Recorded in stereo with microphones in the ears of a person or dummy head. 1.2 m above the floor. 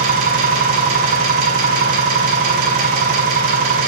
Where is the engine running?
45° right (ahead or behind), 1.7 m.